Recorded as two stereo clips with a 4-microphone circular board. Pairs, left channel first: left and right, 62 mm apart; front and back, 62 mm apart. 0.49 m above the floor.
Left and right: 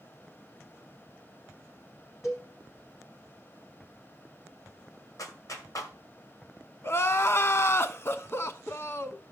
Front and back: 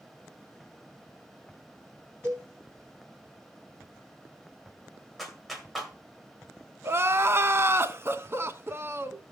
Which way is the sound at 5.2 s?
90° left.